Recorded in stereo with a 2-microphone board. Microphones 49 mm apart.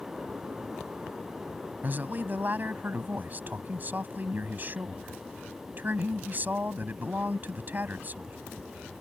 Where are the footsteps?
No footsteps in this recording.